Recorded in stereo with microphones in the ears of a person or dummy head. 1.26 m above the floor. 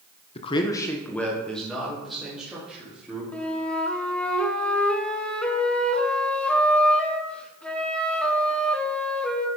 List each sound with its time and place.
0.3 s a man speaking: 25° left (ahead or behind), 0.8 m; by 3.2 s 10° right (ahead or behind), 3 m
3.3 s a flute: centre (ahead or behind), 1.0 m